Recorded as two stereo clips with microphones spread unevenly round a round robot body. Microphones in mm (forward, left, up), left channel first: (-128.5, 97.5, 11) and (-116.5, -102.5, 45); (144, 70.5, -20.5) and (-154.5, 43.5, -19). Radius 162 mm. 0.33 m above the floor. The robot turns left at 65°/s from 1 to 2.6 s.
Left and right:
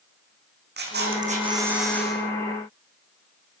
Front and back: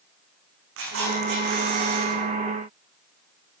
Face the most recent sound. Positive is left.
turn(degrees=135)